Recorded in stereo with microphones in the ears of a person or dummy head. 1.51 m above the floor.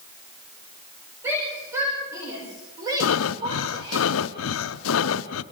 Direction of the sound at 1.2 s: 15° right (ahead or behind).